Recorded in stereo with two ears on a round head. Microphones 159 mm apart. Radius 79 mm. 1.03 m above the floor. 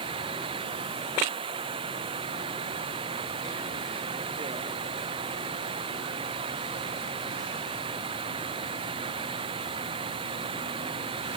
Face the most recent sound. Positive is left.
turn(degrees=-30)  # may be behind; listen again after turning